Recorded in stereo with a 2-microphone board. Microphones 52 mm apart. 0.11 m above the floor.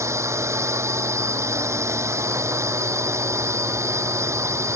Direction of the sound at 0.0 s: 65° right (ahead or behind).